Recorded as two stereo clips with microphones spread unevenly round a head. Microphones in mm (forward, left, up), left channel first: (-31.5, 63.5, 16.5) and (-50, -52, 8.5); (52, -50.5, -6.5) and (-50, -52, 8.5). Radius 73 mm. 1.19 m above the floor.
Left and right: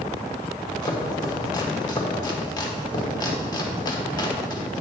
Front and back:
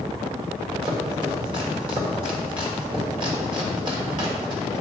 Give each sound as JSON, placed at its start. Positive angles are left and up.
{"t": 0.8, "sound": "chopping", "azimuth_deg": 130, "distance_m": 1.4}